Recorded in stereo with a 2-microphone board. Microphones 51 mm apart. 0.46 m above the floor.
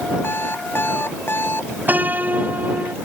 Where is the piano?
35° right (ahead or behind).